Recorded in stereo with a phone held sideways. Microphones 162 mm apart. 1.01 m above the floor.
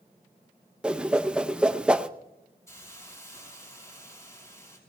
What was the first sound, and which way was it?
A whoosh, 5° right (ahead or behind).